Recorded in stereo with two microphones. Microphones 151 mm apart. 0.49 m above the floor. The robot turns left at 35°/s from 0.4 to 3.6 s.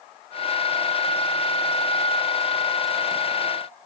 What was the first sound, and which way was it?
Only background noise.